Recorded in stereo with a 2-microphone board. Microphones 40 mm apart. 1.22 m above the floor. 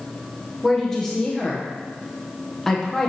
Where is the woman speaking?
10° left (ahead or behind), 0.8 m.